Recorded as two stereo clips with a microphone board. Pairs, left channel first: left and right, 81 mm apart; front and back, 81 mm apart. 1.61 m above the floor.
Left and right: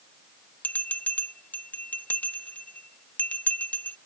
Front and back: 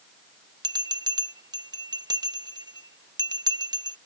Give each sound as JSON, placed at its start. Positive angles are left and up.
{"t": 0.6, "sound": "a bell", "azimuth_deg": 160}